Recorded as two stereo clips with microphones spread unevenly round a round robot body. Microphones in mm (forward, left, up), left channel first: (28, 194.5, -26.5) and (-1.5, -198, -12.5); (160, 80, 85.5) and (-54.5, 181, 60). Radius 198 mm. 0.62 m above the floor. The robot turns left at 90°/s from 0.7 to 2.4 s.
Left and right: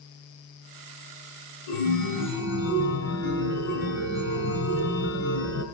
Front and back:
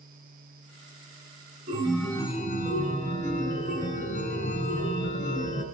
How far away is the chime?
About 4 m.